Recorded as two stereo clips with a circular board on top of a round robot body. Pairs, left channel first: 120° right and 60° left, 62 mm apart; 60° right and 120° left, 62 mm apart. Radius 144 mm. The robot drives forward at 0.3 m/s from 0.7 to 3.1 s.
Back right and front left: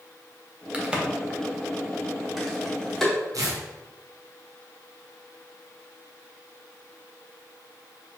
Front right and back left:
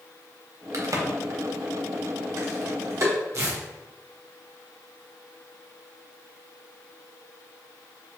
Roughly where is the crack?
Behind left.